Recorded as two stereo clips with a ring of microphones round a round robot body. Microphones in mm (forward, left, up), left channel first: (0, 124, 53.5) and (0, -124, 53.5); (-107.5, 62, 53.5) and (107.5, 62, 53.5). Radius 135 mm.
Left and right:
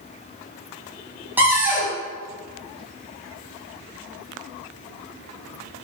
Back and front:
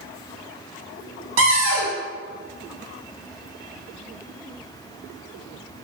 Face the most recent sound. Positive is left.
turn(degrees=-5)